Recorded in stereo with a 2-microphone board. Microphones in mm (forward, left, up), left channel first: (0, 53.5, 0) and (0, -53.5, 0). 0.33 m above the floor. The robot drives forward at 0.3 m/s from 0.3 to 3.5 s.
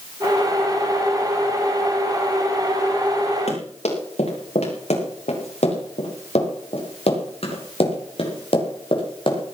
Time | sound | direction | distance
3.5 | running footsteps | 85° left | 8 m